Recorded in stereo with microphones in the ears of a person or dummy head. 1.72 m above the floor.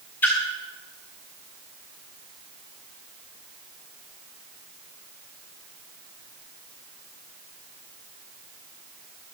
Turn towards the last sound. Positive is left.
turn(degrees=10)  # may be behind; listen again after turning